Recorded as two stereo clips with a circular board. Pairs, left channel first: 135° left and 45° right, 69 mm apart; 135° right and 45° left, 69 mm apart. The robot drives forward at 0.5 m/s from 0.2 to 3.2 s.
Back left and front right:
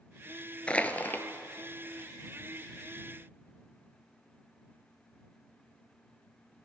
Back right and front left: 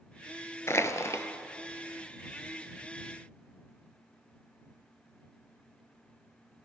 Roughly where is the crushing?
Behind.